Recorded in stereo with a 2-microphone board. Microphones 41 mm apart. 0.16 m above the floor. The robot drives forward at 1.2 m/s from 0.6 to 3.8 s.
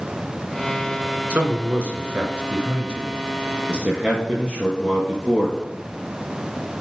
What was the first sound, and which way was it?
A man speaking, 45° right (ahead or behind).